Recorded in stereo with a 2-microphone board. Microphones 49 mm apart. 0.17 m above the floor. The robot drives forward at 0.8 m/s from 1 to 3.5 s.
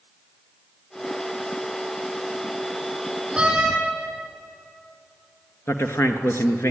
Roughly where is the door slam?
Centre.